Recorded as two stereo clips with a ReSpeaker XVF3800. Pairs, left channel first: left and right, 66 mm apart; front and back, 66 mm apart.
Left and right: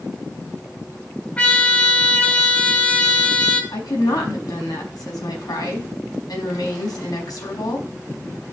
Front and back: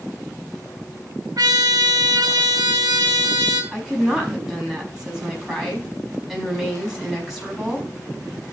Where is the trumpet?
160° left, 1.6 m.